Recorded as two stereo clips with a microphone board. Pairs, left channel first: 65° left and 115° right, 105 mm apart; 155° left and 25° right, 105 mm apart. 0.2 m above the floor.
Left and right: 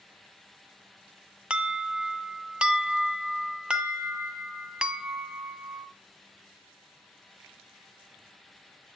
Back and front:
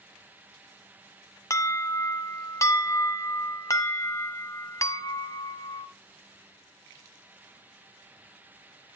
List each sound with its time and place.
1.5 s an alarm: 175° left, 1.0 m